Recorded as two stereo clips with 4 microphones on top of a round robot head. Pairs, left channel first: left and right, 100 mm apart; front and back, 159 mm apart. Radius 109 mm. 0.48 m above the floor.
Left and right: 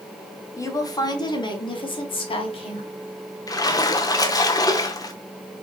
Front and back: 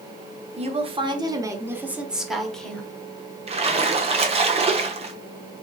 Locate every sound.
0.6 s a woman speaking: 140° left, 1.2 m; by 2.9 s 80° left, 1.5 m
3.5 s a splash: 135° left, 0.9 m